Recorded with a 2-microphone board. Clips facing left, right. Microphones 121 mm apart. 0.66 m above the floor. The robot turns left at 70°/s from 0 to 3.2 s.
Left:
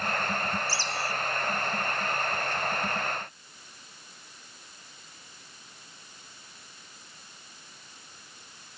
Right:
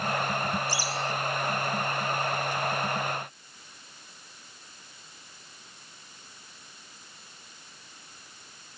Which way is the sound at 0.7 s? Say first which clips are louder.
Right 2 dB; 160° right.